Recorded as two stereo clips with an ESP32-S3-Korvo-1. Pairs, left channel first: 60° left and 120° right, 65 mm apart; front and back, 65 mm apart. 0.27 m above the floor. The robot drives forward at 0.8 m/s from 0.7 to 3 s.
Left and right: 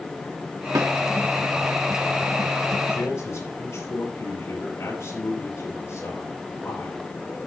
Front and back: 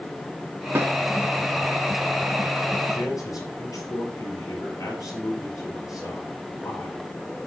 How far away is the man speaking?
About 6 m.